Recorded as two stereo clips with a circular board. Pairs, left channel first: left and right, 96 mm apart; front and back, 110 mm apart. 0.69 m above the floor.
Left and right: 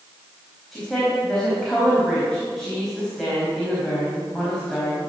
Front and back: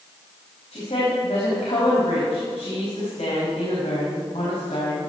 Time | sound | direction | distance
0.7 | a woman speaking | straight ahead | 4 m